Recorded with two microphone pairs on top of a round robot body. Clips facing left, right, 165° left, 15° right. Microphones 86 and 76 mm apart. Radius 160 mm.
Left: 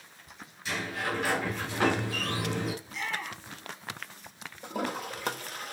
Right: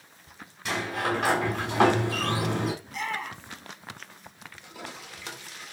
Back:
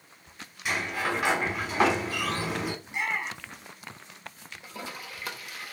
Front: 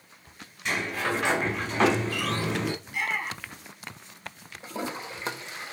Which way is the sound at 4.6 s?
50° left.